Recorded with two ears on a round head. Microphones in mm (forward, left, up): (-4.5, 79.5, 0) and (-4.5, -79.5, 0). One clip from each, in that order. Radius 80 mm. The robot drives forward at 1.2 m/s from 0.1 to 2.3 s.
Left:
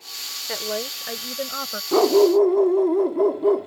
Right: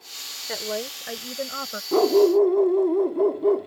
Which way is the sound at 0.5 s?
5° left (ahead or behind).